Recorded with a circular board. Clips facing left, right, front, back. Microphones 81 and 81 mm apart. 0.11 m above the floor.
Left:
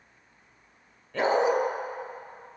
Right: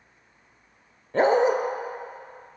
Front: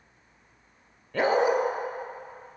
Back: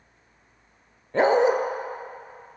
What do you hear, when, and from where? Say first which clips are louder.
1.1 s a dog barking: right 4 dB, back 4 dB; 130° right, 0.8 m